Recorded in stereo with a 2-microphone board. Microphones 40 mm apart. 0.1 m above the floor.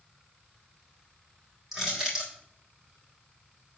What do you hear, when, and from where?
1.7 s crushing: 10° right (ahead or behind), 4.5 m